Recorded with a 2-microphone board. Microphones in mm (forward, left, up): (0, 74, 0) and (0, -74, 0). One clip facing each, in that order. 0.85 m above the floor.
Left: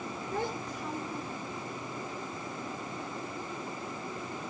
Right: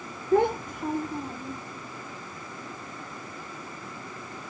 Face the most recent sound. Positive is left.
turn(degrees=-45)  # may be behind; listen again after turning